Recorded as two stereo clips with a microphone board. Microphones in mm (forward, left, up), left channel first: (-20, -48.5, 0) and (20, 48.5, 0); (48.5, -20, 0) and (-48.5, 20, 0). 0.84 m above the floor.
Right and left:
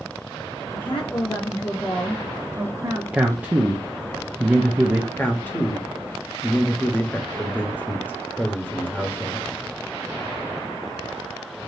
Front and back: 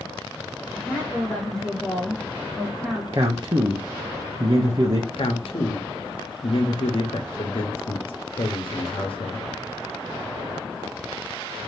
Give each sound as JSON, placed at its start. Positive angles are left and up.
{"t": 0.7, "sound": "a woman speaking", "azimuth_deg": -105, "distance_m": 1.7}
{"t": 3.1, "sound": "a man speaking", "azimuth_deg": 135, "distance_m": 0.8}
{"t": 5.2, "sound": "a man speaking", "azimuth_deg": -40, "distance_m": 1.0}